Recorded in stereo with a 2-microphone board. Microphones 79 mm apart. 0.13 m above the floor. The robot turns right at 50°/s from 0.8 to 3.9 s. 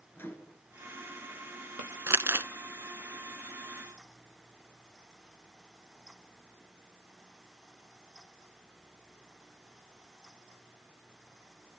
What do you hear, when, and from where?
0.1 s a microwave: 30° left (ahead or behind), 1.8 m
2.1 s crumpling: 35° right (ahead or behind), 0.6 m